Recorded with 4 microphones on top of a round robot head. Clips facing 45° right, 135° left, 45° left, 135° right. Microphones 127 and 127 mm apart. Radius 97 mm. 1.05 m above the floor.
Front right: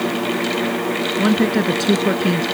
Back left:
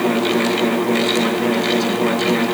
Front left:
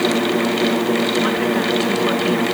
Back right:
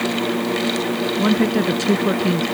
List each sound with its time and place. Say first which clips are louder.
1.2 s a woman speaking: front right 1 dB, back right 1 dB; 85° right